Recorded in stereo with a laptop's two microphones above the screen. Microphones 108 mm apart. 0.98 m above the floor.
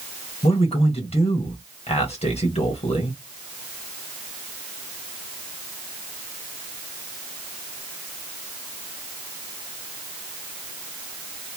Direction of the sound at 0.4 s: 65° left (ahead or behind).